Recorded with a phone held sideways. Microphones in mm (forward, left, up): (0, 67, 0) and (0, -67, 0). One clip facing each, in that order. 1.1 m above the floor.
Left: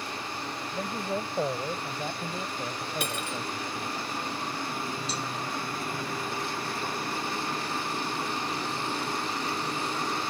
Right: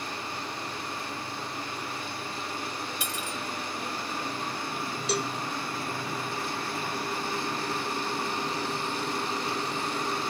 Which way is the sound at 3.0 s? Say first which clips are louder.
Left 2 dB; 60° left (ahead or behind).